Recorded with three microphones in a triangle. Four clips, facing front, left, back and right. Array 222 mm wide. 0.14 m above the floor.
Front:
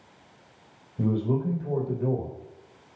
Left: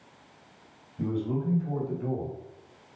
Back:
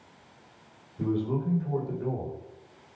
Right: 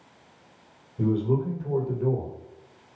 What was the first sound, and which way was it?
A man speaking, 20° right.